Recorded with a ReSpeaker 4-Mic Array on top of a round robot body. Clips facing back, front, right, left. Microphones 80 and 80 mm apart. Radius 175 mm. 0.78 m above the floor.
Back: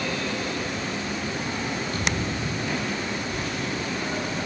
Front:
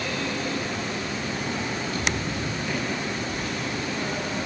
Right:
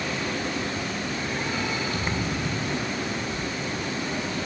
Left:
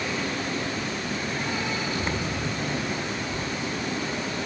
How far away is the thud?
About 7.5 m.